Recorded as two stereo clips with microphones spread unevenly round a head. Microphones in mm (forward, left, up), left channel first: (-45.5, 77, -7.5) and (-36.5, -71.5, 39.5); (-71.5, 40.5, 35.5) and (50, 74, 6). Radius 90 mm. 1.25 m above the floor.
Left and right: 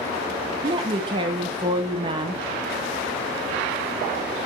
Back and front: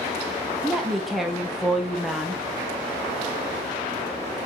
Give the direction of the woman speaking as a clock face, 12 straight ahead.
1 o'clock.